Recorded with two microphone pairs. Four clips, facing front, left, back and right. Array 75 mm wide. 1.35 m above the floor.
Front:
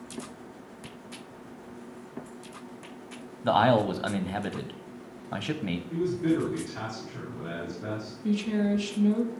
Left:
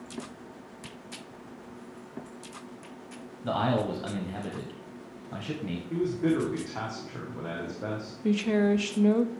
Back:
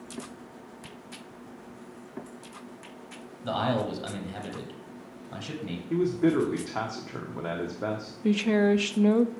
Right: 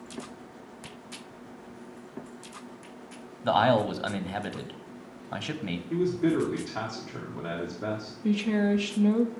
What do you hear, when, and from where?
3.4 s a man speaking: 30° right, 0.7 m
5.9 s a man speaking: 170° left, 1.1 m
8.2 s a woman speaking: 155° left, 0.5 m